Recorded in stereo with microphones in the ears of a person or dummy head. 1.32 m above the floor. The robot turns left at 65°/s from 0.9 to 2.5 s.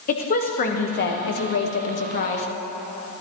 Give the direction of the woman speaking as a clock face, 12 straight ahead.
8 o'clock.